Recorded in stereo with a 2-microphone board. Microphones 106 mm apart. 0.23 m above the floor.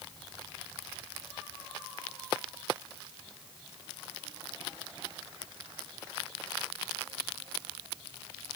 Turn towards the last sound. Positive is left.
No sound to turn to.